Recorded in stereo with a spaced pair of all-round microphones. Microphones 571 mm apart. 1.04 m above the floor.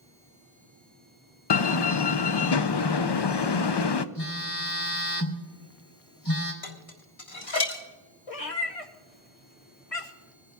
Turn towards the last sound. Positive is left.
turn(degrees=70)  # may be behind; listen again after turning